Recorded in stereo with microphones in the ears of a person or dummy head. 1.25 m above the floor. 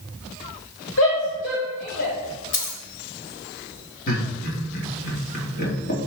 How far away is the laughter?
About 3.5 m.